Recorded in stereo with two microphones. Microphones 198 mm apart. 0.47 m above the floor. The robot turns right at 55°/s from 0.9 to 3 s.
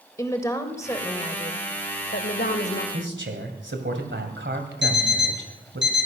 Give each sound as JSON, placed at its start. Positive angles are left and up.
{"t": 0.2, "sound": "a woman speaking", "azimuth_deg": 15, "distance_m": 1.7}
{"t": 2.9, "sound": "a man speaking", "side_deg": -70, "distance_m": 2.0}
{"t": 4.8, "sound": "an alarm clock", "side_deg": -70, "distance_m": 2.0}